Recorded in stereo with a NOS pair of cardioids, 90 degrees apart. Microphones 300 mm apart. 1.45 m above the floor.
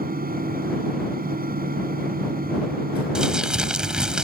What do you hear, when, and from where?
0.0 s a fan: 30° right
3.1 s crumpling: 5° right